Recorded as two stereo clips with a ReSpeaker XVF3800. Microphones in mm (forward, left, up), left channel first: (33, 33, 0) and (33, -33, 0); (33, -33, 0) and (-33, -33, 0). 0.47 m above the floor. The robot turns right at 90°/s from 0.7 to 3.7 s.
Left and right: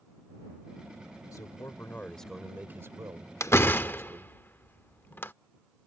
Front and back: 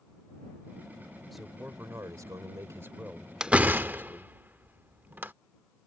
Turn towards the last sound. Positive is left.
turn(degrees=130)